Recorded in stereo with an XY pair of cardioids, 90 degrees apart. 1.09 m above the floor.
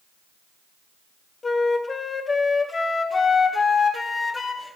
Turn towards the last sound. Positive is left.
turn(degrees=30)